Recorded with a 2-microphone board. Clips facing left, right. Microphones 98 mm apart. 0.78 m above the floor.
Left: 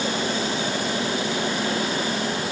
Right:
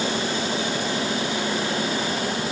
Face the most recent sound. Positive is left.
No sound to turn to.